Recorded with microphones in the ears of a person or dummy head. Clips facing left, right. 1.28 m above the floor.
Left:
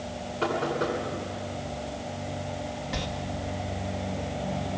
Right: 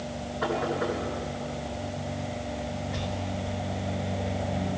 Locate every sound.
0.4 s knocking: 45° left (ahead or behind), 9.5 m
2.9 s a sliding door: 80° left, 2 m